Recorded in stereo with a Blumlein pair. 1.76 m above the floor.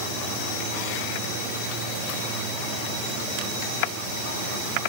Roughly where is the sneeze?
No sneeze in this recording.